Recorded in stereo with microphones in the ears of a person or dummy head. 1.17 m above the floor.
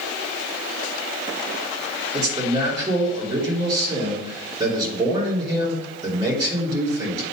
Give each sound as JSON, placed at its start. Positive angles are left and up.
{"t": 2.1, "sound": "a man speaking", "side_deg": -20, "distance_m": 3.0}